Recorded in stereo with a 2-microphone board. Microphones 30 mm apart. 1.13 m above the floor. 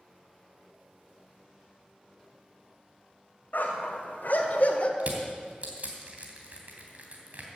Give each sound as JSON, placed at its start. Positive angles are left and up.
{"t": 3.5, "sound": "a dog barking", "side_deg": 75, "distance_m": 2.0}
{"t": 5.0, "sound": "crushing", "side_deg": -50, "distance_m": 2.5}